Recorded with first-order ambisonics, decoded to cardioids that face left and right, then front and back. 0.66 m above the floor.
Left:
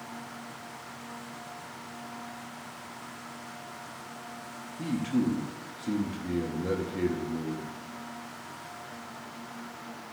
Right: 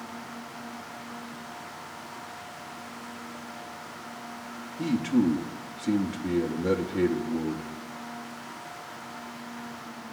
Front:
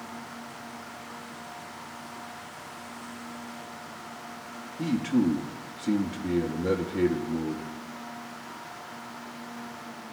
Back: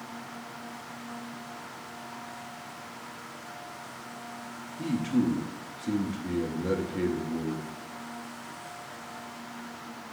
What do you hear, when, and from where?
4.8 s a man speaking: 50° right, 0.8 m